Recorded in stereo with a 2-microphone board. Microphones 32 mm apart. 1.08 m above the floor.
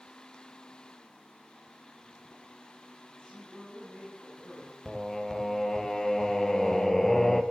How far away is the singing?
About 1.1 m.